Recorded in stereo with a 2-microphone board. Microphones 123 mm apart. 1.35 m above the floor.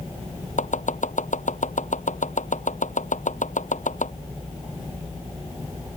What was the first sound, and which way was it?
Chopping, 85° left.